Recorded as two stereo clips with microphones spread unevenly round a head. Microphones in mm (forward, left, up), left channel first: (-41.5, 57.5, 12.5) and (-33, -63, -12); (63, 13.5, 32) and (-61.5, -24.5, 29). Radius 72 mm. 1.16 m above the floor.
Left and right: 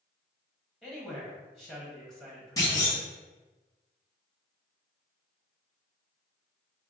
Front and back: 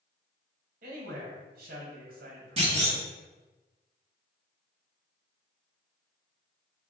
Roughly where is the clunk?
Behind.